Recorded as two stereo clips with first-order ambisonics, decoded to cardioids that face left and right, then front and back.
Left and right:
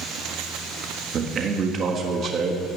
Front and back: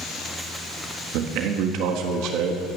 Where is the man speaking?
150° right, 1.6 m.